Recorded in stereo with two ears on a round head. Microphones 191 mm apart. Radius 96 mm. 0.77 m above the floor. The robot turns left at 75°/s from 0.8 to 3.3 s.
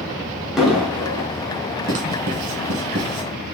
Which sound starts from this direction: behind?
An explosion, at 0.6 s.